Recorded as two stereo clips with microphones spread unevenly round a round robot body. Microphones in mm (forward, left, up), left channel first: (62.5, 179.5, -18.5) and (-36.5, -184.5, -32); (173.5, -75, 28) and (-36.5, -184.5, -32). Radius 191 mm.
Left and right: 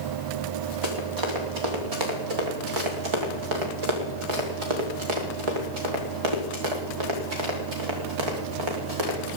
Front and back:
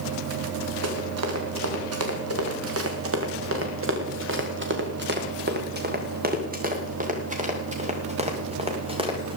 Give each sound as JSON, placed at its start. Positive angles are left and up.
{"t": 0.8, "sound": "running footsteps", "azimuth_deg": -145, "distance_m": 4.5}